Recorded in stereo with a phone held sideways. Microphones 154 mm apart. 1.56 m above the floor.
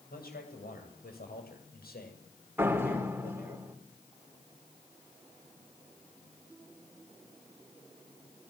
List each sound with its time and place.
0.1 s a man speaking: 80° left, 8.5 m; by 3.6 s 75° left (ahead or behind), 6 m
2.6 s a door slam: 15° right (ahead or behind), 4 m